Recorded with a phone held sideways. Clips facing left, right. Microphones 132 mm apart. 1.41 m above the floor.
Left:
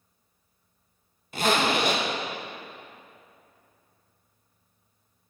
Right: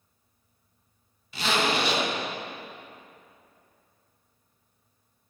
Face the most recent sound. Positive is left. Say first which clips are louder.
# left 2 dB
turn(degrees=50)  # may be behind; listen again after turning